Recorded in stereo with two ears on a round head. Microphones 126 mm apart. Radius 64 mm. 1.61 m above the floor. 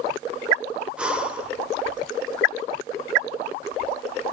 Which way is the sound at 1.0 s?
10° right (ahead or behind).